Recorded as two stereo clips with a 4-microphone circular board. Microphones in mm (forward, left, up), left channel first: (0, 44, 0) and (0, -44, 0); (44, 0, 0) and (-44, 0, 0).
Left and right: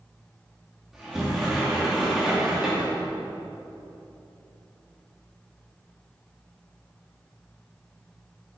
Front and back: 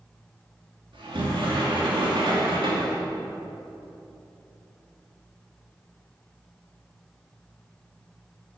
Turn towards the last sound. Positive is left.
turn(degrees=-175)